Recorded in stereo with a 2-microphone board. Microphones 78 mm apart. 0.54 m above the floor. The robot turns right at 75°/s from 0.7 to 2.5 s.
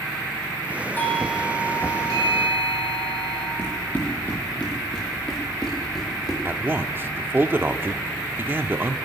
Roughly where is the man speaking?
Right.